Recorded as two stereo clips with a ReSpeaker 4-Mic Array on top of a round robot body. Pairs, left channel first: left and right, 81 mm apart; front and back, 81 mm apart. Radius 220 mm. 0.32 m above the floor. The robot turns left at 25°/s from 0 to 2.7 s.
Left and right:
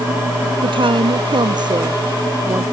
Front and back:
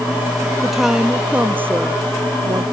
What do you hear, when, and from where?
0.6 s a woman speaking: 90° right; by 2.6 s 140° right